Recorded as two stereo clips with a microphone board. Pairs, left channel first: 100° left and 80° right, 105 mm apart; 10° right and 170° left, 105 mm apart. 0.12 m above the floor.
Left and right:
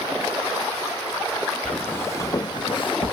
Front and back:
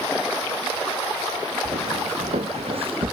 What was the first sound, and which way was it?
Footsteps, straight behind.